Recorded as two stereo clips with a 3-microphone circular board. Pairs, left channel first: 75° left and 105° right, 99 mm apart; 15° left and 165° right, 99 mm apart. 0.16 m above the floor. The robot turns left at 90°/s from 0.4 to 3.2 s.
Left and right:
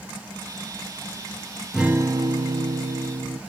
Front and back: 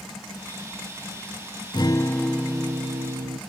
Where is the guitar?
20° right, 0.8 m; by 3.4 s 150° right, 0.8 m.